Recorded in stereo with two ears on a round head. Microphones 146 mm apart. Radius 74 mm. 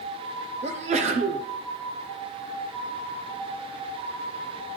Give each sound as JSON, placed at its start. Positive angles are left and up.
{"t": 0.6, "sound": "a sneeze", "side_deg": -45, "distance_m": 0.9}